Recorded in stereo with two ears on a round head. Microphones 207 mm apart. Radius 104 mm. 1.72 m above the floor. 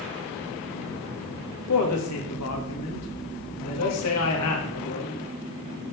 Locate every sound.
1.7 s a woman speaking: 75° left (ahead or behind), 2.5 m